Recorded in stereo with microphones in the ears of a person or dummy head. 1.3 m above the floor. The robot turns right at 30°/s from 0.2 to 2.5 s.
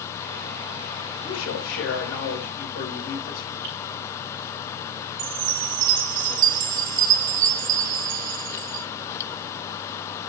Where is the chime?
65° right (ahead or behind), 0.6 m.